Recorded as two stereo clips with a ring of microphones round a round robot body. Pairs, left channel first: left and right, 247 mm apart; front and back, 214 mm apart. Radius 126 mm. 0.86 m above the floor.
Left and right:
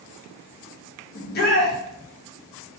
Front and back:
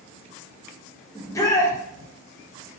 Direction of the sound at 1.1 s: 70° left.